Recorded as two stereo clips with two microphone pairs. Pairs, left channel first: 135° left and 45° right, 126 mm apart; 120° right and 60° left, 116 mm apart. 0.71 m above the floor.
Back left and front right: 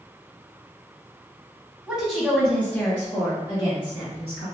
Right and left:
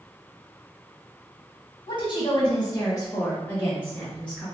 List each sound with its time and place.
1.9 s a woman speaking: 125° right, 1.4 m; by 4.5 s 160° left, 1.9 m